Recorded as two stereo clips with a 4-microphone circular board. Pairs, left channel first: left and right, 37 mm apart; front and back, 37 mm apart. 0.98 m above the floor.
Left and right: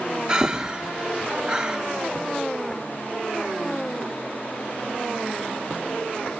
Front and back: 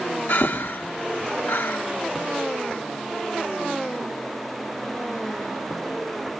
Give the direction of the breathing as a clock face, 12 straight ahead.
1 o'clock.